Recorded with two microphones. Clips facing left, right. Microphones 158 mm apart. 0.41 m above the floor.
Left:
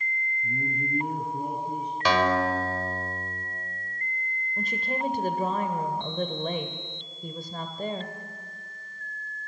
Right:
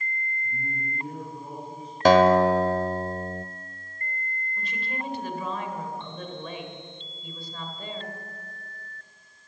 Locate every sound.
0.4 s a man speaking: 70° left (ahead or behind), 3.5 m
2.0 s a guitar: 50° right (ahead or behind), 1.2 m
4.6 s a woman speaking: 45° left (ahead or behind), 1.7 m